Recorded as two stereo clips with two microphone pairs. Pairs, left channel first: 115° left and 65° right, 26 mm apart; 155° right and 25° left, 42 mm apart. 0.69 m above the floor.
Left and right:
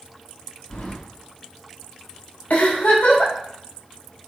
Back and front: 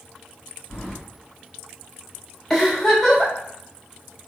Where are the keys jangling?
135° left, 3.5 m.